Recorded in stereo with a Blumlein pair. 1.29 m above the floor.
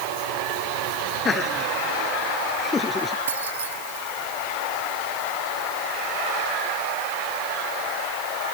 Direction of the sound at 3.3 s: 65° right.